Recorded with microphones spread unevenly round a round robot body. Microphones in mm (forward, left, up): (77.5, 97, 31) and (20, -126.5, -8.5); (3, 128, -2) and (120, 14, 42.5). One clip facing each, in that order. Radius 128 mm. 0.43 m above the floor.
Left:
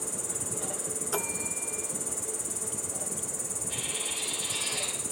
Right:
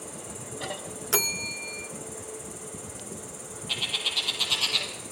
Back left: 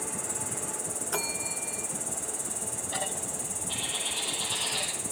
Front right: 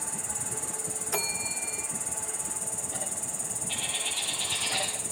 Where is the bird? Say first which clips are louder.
Even, back left 1 dB; 125° right, 4 m.